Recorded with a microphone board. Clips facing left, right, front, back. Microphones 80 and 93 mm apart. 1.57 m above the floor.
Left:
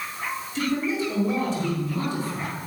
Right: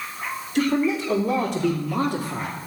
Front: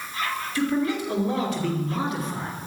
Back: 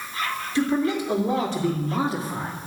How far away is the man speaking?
About 4.5 m.